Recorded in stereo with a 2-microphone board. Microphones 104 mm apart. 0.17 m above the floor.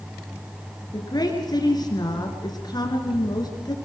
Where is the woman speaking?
40° left (ahead or behind), 3 m.